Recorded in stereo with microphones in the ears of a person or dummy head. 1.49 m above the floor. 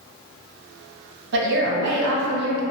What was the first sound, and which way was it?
A woman speaking, 65° right (ahead or behind).